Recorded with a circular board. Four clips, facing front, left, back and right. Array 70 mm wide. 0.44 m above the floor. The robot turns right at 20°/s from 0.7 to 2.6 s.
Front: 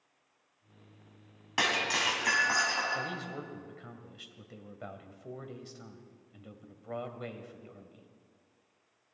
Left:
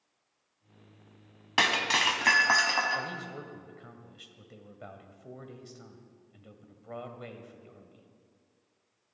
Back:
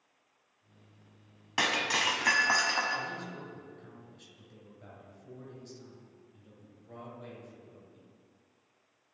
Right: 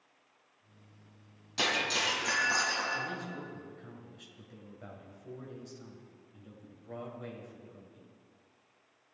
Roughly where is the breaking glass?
Left.